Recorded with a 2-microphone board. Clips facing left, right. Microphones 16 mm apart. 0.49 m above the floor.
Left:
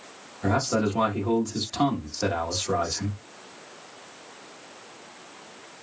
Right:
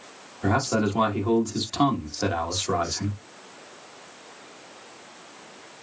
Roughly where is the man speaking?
Right.